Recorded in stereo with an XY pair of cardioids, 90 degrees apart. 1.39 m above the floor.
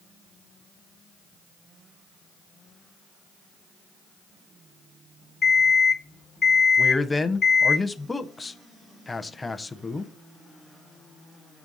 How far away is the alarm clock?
About 1.4 m.